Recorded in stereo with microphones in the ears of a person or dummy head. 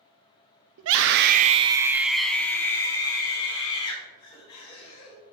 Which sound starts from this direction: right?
A scream, at 0.8 s.